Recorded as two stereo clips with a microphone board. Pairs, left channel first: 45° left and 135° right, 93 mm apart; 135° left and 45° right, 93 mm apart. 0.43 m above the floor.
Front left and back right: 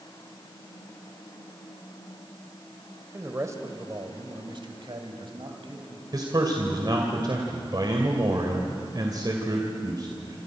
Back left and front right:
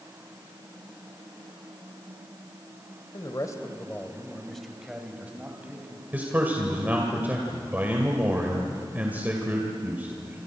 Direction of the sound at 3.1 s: 165° left.